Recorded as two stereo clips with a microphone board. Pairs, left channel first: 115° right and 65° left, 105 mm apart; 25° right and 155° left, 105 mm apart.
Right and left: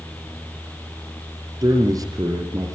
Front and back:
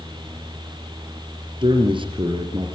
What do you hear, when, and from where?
1.6 s a man speaking: 120° left, 4.5 m